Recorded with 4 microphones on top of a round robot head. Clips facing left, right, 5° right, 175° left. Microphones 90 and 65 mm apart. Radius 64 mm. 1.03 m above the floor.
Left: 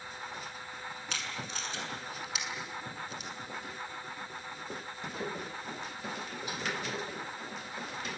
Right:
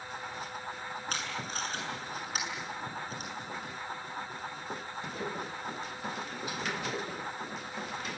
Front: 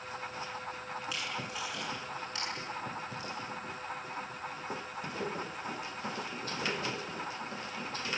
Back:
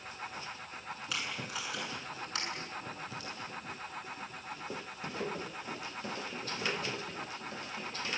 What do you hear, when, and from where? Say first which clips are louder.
1.1 s tape being pulled: right 2 dB, back 2 dB; 140° right, 7.5 m